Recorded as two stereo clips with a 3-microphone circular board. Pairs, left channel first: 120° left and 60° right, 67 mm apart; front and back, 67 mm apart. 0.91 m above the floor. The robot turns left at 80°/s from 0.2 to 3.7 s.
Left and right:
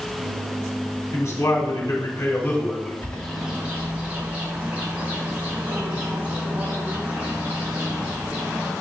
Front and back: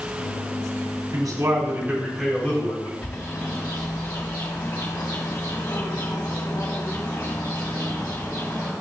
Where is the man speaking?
175° left, 3.5 m; by 2.9 s 30° left, 3.5 m.